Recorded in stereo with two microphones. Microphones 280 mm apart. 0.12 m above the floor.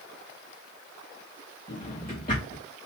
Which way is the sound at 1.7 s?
30° left (ahead or behind).